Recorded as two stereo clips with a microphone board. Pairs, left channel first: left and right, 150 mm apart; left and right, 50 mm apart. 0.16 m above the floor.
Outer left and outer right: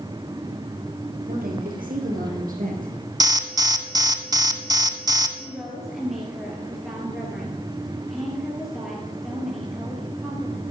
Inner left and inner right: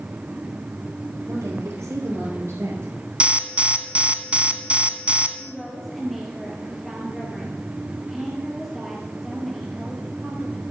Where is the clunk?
I don't hear a clunk.